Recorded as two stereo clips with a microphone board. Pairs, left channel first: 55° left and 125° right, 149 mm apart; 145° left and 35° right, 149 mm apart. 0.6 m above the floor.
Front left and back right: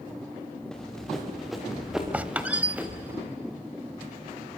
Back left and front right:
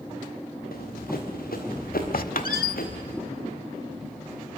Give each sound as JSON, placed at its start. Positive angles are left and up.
{"t": 0.7, "sound": "running footsteps", "azimuth_deg": 140, "distance_m": 5.5}
{"t": 2.1, "sound": "a squeak", "azimuth_deg": 155, "distance_m": 0.9}